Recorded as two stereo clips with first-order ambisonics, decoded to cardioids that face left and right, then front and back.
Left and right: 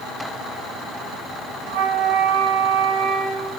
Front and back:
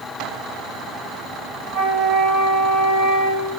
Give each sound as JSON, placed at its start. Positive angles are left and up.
{"t": 1.7, "sound": "a flute", "azimuth_deg": -120, "distance_m": 4.0}